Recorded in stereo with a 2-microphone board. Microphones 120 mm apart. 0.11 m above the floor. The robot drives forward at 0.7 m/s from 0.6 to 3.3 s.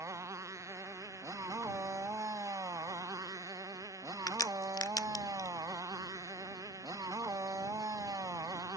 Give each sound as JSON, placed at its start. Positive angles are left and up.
{"t": 0.0, "sound": "a motorcycle", "side_deg": -25}
{"t": 4.3, "sound": "a crack", "side_deg": 30}